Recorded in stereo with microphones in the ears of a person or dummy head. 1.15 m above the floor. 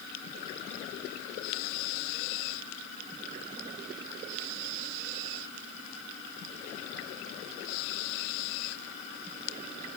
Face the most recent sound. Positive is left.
No sound to turn to.